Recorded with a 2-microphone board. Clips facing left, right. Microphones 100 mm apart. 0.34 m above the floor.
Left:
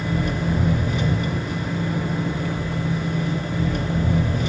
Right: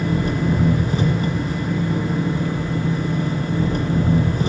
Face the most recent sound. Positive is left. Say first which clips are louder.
# right 3 dB
turn(degrees=-40)  # may be behind; listen again after turning